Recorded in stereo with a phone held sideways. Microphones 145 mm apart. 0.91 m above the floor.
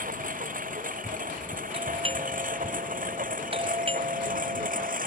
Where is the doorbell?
40° right (ahead or behind).